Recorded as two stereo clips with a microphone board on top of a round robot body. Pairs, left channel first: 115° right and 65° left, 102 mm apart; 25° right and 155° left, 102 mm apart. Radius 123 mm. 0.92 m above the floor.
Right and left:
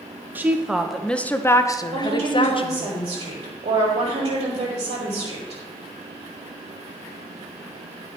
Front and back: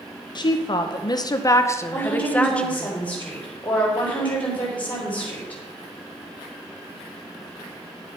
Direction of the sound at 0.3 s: Straight ahead.